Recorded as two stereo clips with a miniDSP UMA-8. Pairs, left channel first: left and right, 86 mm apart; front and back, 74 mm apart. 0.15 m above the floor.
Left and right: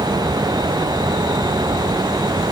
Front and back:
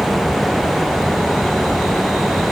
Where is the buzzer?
I don't hear a buzzer.